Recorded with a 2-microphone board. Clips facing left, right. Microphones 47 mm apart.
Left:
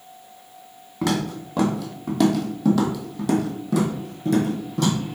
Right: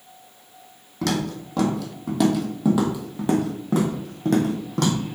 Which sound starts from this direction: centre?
Footsteps, at 1.0 s.